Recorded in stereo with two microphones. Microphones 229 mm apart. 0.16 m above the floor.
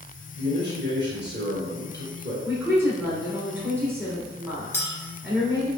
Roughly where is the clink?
Centre.